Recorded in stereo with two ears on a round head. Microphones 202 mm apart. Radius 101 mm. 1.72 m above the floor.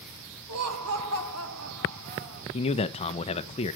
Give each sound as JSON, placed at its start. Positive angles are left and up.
{"t": 0.5, "sound": "laughter", "side_deg": -80, "distance_m": 1.9}
{"t": 2.5, "sound": "a man speaking", "side_deg": 25, "distance_m": 0.8}